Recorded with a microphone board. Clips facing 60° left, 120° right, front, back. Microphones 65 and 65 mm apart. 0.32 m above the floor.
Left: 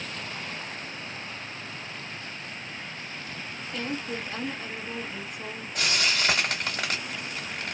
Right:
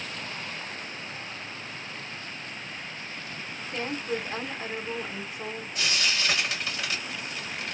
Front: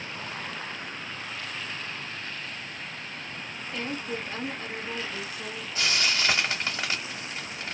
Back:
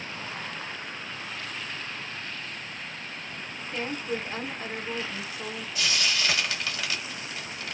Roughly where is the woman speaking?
Behind right.